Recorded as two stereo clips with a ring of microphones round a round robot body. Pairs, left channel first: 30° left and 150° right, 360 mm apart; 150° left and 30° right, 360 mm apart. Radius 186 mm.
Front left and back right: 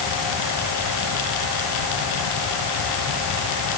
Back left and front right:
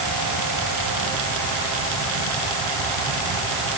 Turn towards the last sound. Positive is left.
No sound to turn to.